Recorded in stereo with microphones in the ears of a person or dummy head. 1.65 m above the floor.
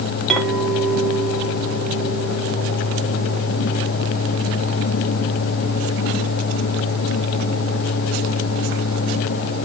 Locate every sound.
0.3 s a clink: 5° left (ahead or behind), 2.5 m